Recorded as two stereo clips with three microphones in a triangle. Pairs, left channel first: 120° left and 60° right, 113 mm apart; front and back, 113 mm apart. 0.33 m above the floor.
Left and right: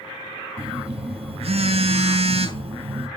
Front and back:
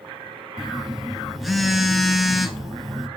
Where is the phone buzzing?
90° right, 0.5 m.